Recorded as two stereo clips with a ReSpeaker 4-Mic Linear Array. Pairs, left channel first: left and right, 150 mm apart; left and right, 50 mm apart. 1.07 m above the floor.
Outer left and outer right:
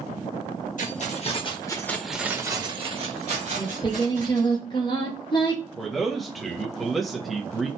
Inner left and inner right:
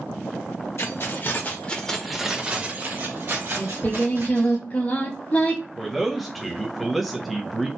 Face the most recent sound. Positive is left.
turn(degrees=0)  # may be behind; listen again after turning